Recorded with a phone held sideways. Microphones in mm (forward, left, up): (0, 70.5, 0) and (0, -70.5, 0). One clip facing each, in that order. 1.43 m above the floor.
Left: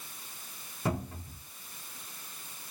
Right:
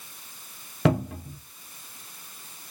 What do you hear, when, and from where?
0.8 s a cupboard door: 85° right, 0.8 m